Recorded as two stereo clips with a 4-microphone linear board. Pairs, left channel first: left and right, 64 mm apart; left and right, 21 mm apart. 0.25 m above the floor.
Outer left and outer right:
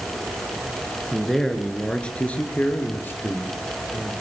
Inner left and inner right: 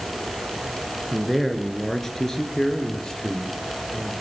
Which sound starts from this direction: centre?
A man speaking, at 1.1 s.